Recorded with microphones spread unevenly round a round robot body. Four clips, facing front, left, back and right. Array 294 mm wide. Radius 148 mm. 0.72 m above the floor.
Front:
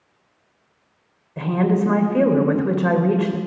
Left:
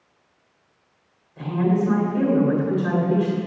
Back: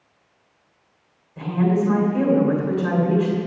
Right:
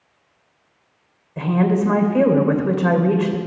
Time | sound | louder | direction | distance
1.4 | a woman speaking | right 3 dB, front 1 dB | 50° right | 2.5 m